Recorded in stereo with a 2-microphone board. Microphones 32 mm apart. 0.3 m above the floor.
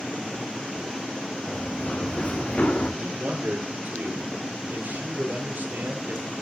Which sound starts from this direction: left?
Running footsteps, at 1.5 s.